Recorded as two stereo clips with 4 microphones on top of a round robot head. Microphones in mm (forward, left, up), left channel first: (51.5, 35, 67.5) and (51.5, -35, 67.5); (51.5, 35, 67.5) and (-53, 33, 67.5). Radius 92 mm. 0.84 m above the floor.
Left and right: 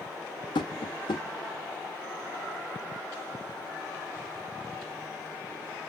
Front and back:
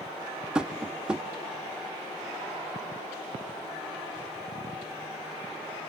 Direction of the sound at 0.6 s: 100° left.